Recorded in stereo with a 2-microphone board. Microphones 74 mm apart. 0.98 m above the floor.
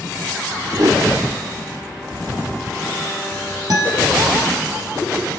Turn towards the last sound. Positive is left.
turn(degrees=-60)  # may be behind; listen again after turning